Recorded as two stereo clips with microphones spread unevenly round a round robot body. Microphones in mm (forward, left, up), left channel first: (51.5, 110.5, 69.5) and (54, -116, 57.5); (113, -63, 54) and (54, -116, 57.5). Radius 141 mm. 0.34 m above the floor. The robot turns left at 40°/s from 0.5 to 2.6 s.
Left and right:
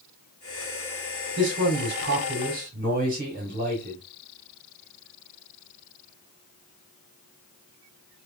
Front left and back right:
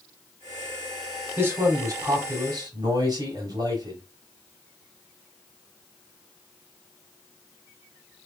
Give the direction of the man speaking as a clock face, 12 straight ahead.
3 o'clock.